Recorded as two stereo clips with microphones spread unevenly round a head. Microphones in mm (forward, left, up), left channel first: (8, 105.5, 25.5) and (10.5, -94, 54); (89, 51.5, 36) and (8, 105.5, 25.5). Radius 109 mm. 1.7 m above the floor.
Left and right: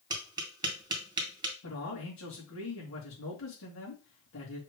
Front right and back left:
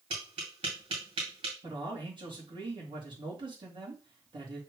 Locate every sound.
0.1 s tapping: 160° right, 1.8 m
1.6 s a man speaking: 110° left, 3.5 m